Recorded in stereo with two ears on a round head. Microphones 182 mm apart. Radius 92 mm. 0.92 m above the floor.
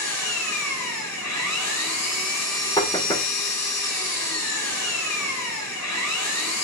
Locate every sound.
0.0 s an engine running: 80° left, 6 m
2.8 s knocking: 20° left (ahead or behind), 1.6 m